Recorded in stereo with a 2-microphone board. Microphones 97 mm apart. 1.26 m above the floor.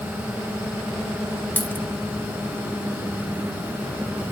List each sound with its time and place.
1.6 s a dropped coin: 20° left (ahead or behind), 1.0 m